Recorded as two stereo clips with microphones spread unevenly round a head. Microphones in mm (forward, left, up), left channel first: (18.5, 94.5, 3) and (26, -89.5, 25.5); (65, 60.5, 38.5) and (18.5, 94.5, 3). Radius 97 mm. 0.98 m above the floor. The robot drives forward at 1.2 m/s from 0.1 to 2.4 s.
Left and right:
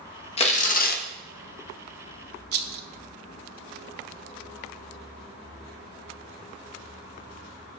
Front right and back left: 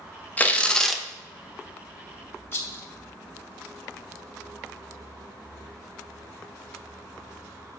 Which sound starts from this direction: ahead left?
Tearing paper, at 0.4 s.